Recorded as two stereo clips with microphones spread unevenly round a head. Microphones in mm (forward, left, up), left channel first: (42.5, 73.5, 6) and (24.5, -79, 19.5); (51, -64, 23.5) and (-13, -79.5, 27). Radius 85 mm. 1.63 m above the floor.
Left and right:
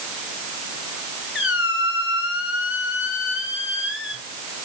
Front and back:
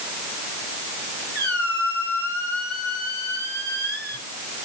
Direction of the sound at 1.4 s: 120° left.